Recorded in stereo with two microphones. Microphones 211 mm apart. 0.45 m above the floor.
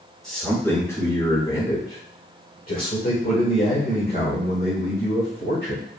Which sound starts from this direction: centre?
A man speaking, at 0.2 s.